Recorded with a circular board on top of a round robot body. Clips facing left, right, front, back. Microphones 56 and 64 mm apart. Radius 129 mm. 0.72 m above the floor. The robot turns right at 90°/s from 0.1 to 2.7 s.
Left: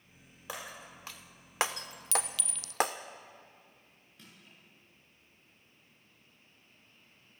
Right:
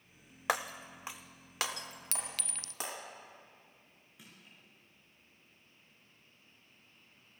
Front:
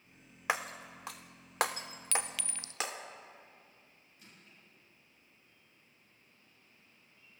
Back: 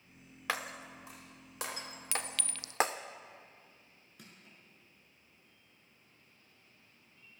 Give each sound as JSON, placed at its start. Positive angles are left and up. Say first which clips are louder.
{"t": 0.5, "sound": "breaking glass", "louder": "right 9 dB, front 3 dB", "azimuth_deg": -70, "distance_m": 0.5}
{"t": 2.1, "sound": "a clink", "louder": "left 10 dB, front 2 dB", "azimuth_deg": -100, "distance_m": 0.6}
{"t": 4.2, "sound": "crushing", "louder": "left 1 dB, back 3 dB", "azimuth_deg": -170, "distance_m": 7.0}